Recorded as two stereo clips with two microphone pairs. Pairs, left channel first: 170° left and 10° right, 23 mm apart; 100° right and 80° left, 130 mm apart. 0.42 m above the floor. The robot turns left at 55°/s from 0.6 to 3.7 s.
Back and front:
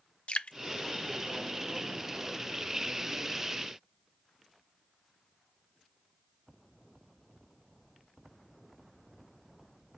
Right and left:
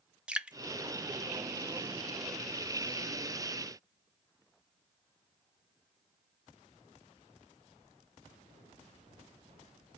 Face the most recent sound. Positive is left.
turn(degrees=-10)